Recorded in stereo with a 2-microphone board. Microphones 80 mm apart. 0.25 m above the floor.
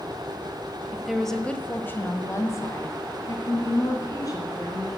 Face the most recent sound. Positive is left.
turn(degrees=50)  # may be behind; listen again after turning